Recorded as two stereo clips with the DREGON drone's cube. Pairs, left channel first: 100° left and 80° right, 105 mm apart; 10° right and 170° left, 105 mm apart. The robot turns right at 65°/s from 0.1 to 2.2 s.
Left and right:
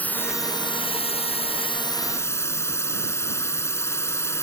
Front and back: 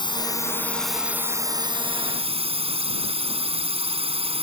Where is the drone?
25° left; by 4.4 s 165° left.